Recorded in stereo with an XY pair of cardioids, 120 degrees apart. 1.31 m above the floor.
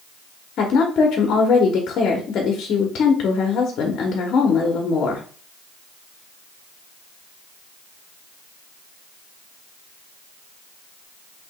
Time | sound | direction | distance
0.6 | a woman speaking | 60° left | 1.1 m